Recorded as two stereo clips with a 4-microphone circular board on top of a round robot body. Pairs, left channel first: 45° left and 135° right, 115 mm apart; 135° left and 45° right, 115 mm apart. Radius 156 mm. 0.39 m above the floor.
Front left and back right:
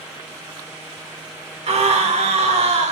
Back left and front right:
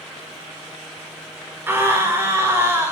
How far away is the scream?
About 4 m.